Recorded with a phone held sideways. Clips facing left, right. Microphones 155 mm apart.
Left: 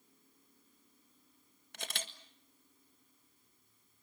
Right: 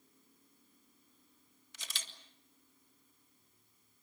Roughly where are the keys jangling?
No keys jangling in this recording.